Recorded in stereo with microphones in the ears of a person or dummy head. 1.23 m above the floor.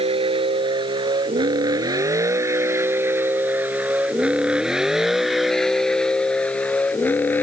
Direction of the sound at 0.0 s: 30° right (ahead or behind).